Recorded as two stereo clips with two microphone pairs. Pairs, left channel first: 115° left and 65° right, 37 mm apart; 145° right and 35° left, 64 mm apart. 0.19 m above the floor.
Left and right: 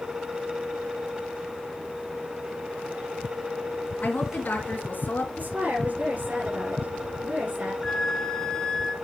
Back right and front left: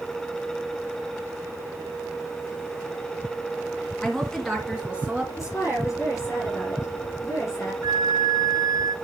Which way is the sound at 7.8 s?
45° left.